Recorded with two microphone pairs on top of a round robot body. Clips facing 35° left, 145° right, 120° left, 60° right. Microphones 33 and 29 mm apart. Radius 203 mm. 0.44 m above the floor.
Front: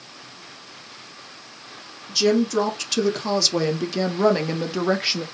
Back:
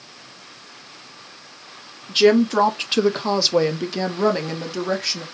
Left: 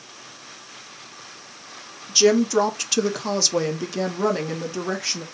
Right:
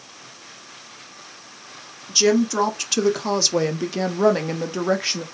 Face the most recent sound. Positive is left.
turn(degrees=-15)